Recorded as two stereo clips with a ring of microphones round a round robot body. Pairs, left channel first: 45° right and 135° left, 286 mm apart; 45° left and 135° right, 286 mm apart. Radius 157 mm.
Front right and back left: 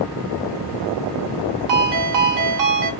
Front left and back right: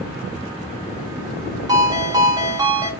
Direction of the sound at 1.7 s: 145° left.